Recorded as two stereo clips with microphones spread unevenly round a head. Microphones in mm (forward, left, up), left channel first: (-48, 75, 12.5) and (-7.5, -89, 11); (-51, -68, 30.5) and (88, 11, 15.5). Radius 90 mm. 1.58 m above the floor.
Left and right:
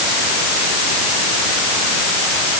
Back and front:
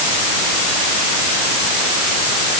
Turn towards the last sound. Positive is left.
No sound to turn to.